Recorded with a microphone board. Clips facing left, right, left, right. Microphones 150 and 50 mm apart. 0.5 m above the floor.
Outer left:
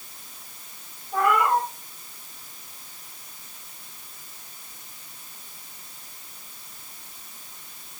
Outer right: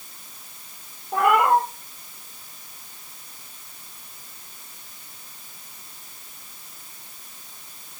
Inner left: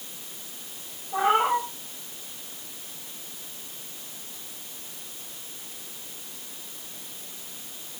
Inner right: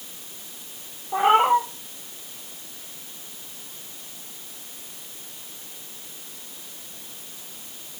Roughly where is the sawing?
No sawing in this recording.